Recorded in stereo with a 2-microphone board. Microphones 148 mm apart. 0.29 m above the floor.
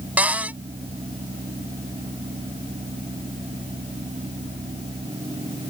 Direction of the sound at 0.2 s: 10° right (ahead or behind).